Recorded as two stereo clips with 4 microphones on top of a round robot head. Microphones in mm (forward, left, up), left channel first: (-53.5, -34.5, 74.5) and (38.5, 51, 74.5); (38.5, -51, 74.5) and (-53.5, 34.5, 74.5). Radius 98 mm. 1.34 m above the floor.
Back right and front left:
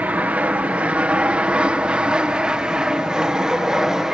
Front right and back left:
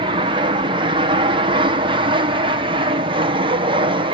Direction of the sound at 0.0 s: 120° left.